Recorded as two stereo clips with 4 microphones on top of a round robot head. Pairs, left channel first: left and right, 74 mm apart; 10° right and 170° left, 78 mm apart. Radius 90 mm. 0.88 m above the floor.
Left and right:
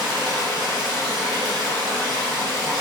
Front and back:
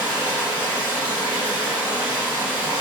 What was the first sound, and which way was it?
Running water, 110° right.